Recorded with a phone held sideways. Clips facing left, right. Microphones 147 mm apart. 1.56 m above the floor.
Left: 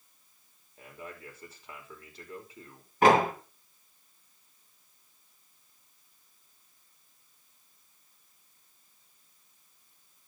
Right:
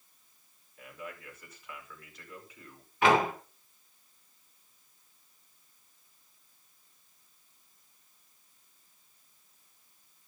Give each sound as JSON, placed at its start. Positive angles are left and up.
{"t": 0.8, "sound": "a man speaking", "side_deg": 30, "distance_m": 5.0}
{"t": 3.0, "sound": "a door slam", "side_deg": 45, "distance_m": 3.5}